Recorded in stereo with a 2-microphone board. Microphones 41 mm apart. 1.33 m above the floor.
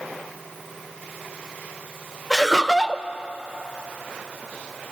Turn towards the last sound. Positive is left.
turn(degrees=0)  # may be behind; listen again after turning